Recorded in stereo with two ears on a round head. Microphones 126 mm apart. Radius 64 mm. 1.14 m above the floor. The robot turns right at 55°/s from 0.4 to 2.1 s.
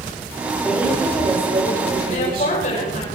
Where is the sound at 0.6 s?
175° left, 5 m; by 3.0 s 100° right, 5 m.